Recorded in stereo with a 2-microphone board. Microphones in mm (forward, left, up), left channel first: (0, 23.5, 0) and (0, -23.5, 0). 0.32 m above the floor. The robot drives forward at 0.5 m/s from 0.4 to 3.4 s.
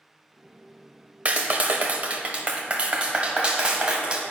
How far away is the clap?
About 0.8 m.